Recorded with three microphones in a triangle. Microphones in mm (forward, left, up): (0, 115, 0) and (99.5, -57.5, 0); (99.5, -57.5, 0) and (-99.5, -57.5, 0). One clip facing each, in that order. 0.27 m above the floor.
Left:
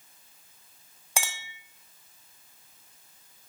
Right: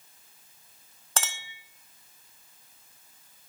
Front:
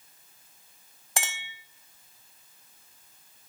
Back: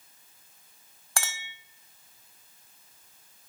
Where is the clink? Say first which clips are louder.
Left 1 dB, front 1 dB; 50° left, 1.1 m.